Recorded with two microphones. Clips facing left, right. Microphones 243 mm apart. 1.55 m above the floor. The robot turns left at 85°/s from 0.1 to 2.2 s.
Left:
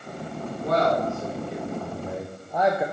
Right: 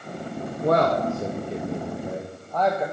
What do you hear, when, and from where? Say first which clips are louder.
0.6 s a man speaking: right 2 dB; 50° right (ahead or behind), 0.6 m; by 2.8 s 10° left (ahead or behind), 0.6 m